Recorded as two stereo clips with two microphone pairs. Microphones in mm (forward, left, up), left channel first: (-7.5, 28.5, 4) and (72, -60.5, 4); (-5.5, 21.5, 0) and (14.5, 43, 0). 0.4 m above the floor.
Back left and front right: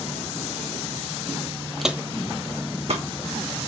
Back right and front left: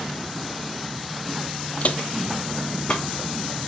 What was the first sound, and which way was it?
Footsteps, 135° right.